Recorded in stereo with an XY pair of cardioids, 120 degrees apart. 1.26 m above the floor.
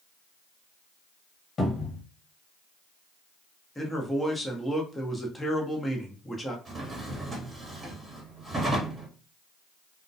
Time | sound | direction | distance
1.6 | a cupboard door | 40° left | 1.1 m
3.8 | a man speaking | 10° left | 0.8 m
6.7 | a drawer | 15° right | 1.0 m